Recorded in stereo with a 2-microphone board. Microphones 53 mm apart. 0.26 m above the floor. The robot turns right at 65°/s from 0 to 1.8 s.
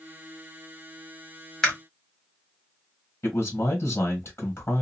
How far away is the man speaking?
About 1.4 m.